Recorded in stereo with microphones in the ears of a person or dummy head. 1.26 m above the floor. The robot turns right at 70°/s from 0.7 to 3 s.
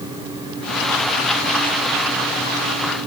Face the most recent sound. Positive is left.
No sound to turn to.